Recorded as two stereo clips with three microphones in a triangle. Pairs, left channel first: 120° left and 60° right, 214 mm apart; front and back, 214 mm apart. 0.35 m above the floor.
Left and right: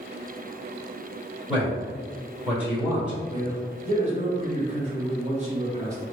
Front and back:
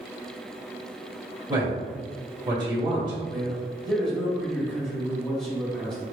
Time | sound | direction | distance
1.5 | a man speaking | 140° right | 1.4 m
3.3 | a man speaking | 85° right | 1.0 m